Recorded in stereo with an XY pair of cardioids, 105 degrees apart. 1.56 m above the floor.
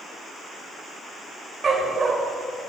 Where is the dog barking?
40° right, 3 m.